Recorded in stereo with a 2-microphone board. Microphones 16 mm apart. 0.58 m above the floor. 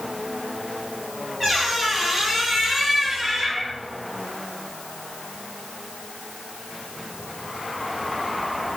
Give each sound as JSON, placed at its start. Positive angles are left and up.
{"t": 1.4, "sound": "a squeak", "side_deg": 5, "distance_m": 3.5}